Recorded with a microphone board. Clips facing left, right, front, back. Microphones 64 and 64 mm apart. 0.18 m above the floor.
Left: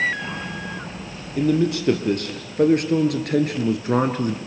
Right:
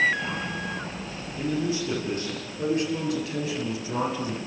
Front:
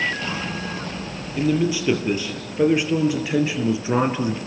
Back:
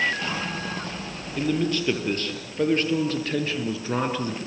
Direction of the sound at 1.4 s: 80° left.